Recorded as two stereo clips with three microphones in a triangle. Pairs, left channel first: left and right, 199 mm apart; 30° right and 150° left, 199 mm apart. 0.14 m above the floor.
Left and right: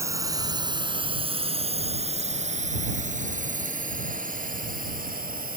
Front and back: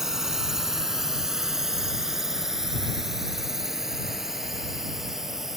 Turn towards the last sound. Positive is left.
turn(degrees=-120)